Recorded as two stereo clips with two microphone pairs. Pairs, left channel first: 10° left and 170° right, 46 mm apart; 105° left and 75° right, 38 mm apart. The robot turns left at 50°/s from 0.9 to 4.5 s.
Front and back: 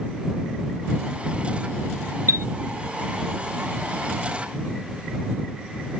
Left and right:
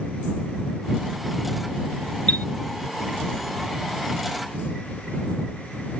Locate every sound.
2.3 s a chime: 160° left; by 2.5 s 150° left